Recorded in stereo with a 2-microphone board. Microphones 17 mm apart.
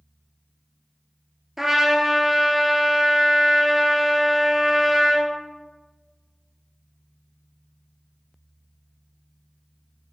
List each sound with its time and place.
1.6 s a trumpet: 20° right (ahead or behind), 1.4 m